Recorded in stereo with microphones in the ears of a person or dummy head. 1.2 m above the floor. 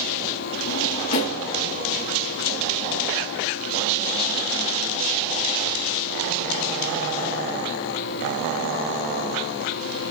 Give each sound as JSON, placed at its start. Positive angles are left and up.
{"t": 0.7, "sound": "a drawer", "side_deg": 45, "distance_m": 3.0}